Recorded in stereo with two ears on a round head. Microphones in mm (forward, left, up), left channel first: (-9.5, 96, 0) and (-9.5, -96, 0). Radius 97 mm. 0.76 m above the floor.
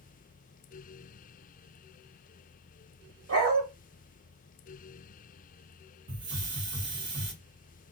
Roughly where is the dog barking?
Right.